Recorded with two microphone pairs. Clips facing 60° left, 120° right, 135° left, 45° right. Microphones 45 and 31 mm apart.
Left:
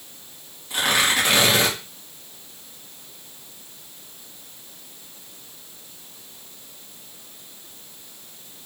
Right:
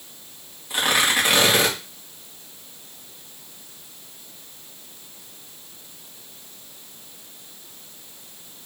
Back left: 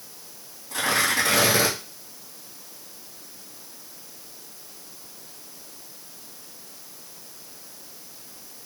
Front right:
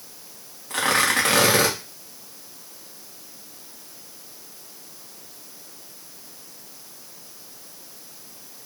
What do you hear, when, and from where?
0.7 s tearing paper: 45° right, 1.4 m